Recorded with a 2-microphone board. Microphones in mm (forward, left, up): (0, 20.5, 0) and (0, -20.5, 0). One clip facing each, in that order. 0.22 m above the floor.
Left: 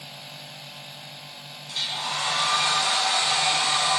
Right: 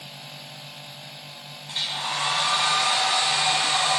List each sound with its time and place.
1.7 s a hair dryer: 35° right (ahead or behind), 1.1 m